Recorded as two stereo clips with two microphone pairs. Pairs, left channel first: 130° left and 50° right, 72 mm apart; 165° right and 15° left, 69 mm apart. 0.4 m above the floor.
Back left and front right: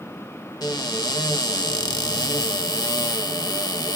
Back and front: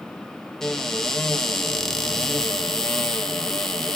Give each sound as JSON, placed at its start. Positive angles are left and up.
{"t": 0.6, "sound": "a cupboard door", "azimuth_deg": 115, "distance_m": 0.5}